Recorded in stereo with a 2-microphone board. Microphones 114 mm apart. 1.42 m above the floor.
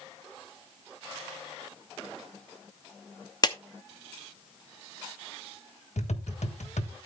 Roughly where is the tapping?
Left.